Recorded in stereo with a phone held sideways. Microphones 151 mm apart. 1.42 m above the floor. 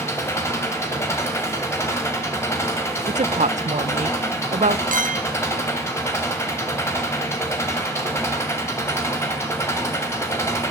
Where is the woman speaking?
50° right (ahead or behind), 0.8 m.